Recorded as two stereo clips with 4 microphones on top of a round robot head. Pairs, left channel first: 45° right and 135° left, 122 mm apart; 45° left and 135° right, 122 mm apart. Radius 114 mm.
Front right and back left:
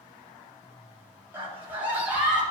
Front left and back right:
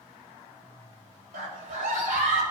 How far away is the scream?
About 3.5 m.